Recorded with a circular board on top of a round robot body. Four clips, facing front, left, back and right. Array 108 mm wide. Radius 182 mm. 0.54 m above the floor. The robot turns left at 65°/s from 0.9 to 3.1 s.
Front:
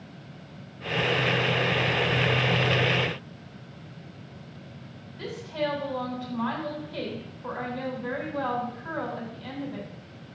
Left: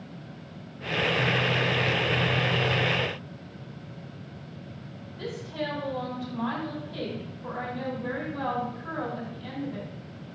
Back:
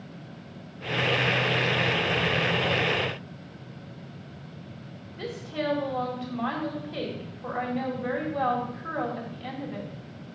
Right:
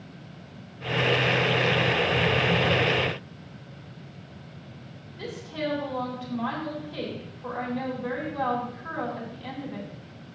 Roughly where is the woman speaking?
Behind.